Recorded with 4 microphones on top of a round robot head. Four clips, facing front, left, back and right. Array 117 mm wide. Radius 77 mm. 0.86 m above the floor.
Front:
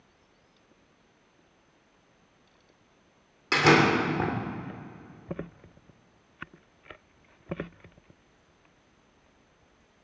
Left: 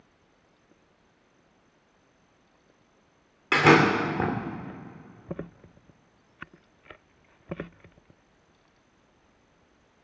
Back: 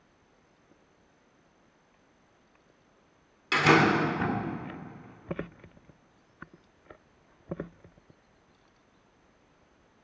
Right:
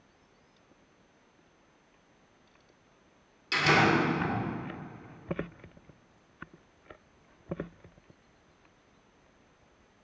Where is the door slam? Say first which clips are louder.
Left 6 dB, front 1 dB; 60° left, 2 m.